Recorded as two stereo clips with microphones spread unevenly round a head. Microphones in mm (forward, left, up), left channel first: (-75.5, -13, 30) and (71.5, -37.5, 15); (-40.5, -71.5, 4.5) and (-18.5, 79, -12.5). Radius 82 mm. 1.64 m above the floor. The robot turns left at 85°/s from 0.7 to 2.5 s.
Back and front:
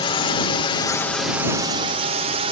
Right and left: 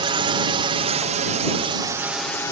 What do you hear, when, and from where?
0.0 s a drone: 120° left; by 2.5 s 30° right